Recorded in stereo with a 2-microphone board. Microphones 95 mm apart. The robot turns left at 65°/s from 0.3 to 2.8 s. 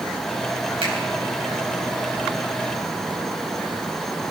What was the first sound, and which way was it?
A finger snap, 75° right (ahead or behind).